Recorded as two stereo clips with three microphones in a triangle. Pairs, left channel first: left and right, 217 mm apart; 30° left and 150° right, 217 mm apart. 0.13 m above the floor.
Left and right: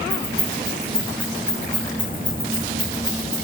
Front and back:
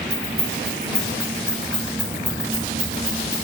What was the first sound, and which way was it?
Keys jangling, 170° left.